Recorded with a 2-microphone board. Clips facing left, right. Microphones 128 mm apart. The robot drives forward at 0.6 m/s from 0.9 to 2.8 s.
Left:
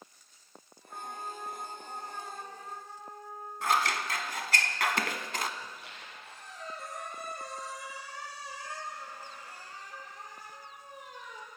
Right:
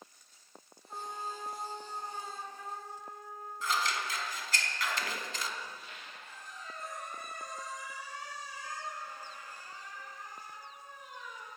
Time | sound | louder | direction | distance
0.9 | a trumpet | even | 25° right (ahead or behind) | 8.5 m
3.6 | scissors | left 5 dB | 65° left (ahead or behind) | 1.3 m
5.6 | a squeak | even | 70° left (ahead or behind) | 6.5 m